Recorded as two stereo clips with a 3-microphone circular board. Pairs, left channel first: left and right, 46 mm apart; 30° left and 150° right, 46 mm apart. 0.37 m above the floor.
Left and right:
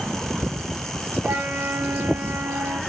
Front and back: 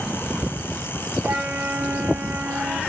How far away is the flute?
About 2.5 m.